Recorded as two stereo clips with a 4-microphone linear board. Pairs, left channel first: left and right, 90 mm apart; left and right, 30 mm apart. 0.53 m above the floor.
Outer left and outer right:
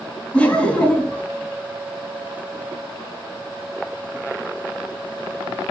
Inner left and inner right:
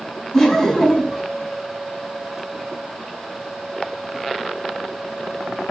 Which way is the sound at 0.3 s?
15° left (ahead or behind).